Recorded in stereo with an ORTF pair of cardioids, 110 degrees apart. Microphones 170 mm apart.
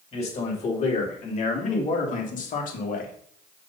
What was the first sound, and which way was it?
A man speaking, 40° left.